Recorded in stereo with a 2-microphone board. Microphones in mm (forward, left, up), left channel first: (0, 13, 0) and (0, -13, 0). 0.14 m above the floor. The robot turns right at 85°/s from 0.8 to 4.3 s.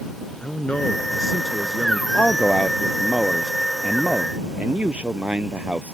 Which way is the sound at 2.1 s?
65° left.